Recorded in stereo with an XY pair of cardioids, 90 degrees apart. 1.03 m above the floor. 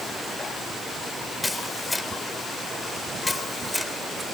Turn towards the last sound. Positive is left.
turn(degrees=15)